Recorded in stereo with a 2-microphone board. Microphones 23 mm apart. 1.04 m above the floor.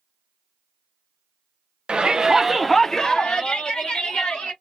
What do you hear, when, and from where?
1.9 s a shout: 45° right (ahead or behind), 0.7 m; by 4.5 s 70° left (ahead or behind), 1.3 m